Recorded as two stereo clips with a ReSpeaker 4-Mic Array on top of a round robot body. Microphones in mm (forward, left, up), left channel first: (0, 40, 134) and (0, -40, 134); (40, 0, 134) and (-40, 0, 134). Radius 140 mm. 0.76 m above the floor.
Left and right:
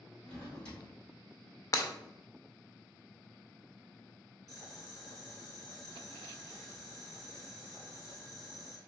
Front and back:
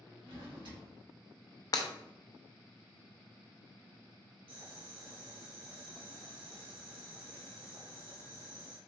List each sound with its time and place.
0.2 s a drawer: 170° left, 1.6 m
1.7 s breaking glass: 40° left, 0.6 m
4.5 s boiling: 175° left, 1.6 m